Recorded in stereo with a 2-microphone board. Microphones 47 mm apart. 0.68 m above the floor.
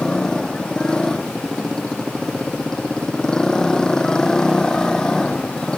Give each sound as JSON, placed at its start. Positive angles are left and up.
{"t": 0.0, "sound": "a motorcycle", "side_deg": 15}